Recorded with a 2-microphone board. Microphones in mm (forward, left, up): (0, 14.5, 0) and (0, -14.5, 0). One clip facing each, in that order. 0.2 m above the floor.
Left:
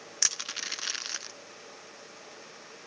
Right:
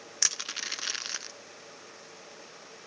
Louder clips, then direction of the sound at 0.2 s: Even; 5° right (ahead or behind).